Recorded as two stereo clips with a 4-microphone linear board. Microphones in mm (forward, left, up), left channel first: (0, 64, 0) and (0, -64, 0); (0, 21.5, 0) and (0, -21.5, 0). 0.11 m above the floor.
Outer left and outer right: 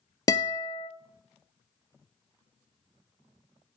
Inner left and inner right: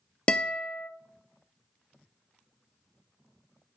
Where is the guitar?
25° left (ahead or behind), 0.6 m.